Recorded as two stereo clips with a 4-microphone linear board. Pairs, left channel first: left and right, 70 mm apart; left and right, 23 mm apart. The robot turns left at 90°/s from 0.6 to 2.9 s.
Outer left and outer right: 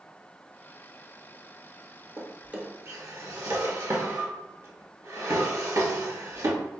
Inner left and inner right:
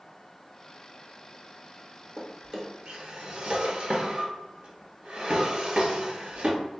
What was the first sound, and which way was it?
A drawer, 10° left (ahead or behind).